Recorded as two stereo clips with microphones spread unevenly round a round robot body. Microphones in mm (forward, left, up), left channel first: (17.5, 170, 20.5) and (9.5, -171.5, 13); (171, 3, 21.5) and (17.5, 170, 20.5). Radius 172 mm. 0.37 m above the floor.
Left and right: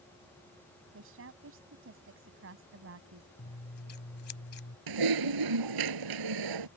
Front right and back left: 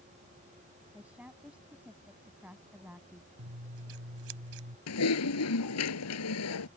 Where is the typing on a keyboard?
70° right.